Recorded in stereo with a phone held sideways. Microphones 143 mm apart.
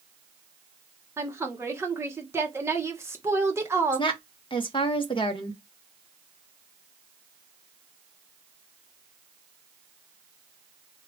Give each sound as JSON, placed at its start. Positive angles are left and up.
{"t": 1.2, "sound": "a woman speaking", "side_deg": -20, "distance_m": 1.1}
{"t": 3.9, "sound": "a woman speaking", "side_deg": 35, "distance_m": 1.0}